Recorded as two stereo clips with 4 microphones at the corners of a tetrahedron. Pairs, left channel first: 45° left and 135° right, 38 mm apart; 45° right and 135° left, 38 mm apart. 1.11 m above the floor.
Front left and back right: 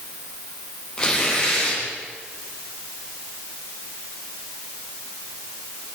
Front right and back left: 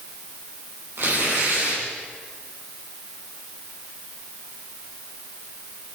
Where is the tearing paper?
115° left, 10 m.